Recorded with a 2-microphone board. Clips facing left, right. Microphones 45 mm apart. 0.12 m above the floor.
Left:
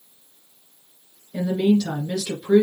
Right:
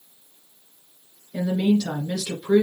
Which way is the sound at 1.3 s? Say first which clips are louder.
Left 2 dB; 5° right (ahead or behind).